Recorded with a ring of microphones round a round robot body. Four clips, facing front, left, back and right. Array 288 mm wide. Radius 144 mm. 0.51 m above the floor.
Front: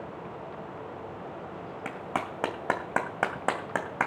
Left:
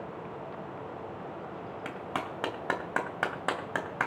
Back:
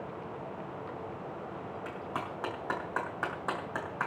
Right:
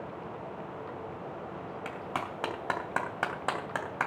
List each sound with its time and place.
1.9 s a clap: 10° left, 2.5 m